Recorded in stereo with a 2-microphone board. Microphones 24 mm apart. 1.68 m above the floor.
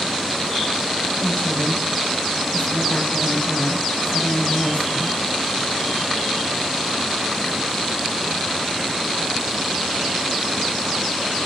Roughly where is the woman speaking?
Left.